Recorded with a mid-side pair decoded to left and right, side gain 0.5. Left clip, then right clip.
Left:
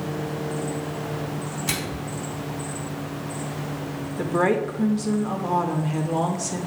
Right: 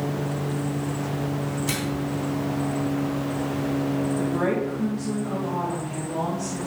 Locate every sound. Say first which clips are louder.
1.7 s a microwave: left 2 dB; 25° left, 3 m
4.2 s a woman speaking: left 7 dB; 55° left, 1.5 m